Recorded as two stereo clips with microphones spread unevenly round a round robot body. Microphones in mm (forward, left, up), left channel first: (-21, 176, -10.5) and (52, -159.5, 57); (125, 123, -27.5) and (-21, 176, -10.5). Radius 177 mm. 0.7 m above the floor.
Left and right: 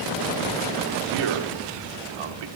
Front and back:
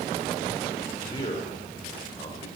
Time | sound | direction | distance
1.1 | a man speaking | 85° right | 2 m